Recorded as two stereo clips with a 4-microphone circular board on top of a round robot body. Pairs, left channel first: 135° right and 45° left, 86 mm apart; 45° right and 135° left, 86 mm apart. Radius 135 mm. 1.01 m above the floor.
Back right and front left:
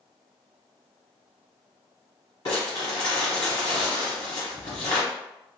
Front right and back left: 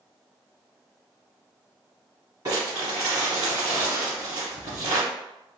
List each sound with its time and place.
2.5 s crumpling: 175° left, 1.2 m